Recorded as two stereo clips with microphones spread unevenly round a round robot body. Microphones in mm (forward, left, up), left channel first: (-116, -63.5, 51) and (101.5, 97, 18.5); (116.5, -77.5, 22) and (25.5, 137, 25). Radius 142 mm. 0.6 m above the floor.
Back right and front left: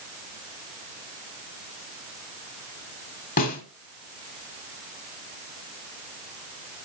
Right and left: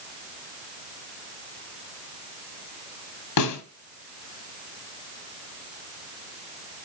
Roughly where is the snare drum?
Right.